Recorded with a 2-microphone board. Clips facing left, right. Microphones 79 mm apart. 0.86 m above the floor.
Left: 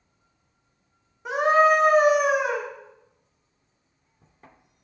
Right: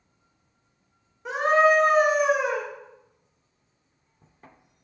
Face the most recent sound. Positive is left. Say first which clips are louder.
# left 1 dB
turn(degrees=0)  # may be behind; listen again after turning